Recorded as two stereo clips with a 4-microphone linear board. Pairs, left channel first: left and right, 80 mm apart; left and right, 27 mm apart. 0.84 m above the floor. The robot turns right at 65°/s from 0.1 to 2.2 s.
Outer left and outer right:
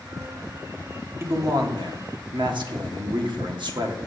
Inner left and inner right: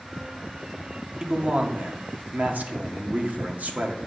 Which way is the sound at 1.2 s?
145° right.